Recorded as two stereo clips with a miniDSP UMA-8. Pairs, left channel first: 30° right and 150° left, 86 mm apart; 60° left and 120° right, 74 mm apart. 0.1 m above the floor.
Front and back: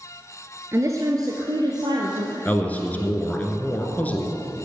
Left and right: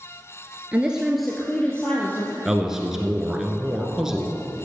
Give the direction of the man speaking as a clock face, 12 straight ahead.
2 o'clock.